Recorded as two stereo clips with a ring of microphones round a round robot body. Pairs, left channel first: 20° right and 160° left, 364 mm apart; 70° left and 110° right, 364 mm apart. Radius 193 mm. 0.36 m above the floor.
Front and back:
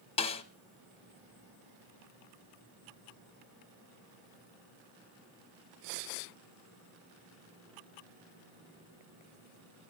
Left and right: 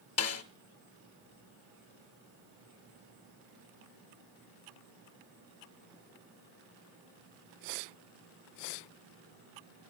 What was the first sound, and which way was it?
A snare drum, 45° left.